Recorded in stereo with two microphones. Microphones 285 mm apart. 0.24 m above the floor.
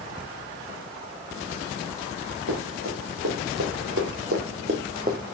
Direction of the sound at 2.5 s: 70° right (ahead or behind).